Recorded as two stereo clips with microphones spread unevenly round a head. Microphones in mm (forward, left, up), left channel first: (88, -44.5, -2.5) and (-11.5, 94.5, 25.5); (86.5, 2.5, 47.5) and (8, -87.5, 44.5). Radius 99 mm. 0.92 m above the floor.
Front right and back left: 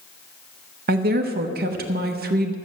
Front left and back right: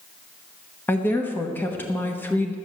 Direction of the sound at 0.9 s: 120° left.